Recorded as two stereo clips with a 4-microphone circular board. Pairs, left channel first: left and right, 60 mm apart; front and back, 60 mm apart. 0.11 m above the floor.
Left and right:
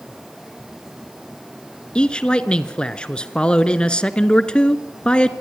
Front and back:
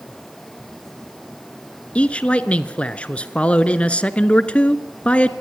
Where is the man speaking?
40° left, 1.2 m.